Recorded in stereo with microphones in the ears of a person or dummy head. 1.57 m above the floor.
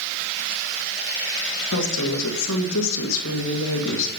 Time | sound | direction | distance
1.7 | a woman speaking | 70° left (ahead or behind) | 1.9 m